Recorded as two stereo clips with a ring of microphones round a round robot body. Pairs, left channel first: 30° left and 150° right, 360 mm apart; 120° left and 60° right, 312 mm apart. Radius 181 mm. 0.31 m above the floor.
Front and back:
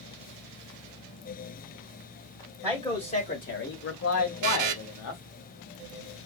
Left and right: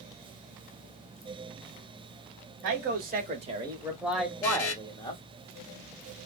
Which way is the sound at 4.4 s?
165° left.